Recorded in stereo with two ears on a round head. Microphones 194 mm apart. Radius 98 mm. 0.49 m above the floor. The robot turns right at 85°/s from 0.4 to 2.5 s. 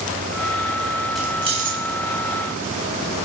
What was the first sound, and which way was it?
Keys jangling, centre (ahead or behind).